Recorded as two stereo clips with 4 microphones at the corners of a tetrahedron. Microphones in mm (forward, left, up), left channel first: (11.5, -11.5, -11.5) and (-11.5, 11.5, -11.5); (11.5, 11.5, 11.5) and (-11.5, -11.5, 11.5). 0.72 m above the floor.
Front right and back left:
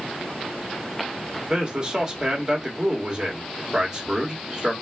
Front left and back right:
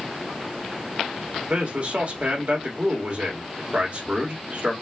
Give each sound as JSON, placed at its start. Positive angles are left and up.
{"t": 1.5, "sound": "a man speaking", "azimuth_deg": -165, "distance_m": 1.7}